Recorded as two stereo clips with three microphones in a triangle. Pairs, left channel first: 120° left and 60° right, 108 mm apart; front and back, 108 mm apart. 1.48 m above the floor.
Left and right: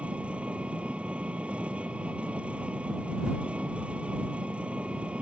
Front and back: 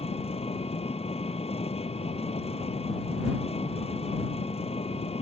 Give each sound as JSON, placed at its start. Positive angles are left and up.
{"t": 0.0, "sound": "an engine running", "azimuth_deg": 20}